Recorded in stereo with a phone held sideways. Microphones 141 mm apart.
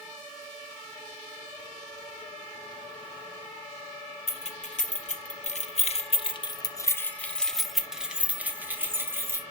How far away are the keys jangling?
About 1.3 m.